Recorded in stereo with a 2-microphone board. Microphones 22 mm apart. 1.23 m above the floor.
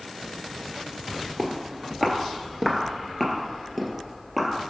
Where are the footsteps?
15° left (ahead or behind), 1.4 m; by 4.5 s 10° left (ahead or behind), 1.8 m.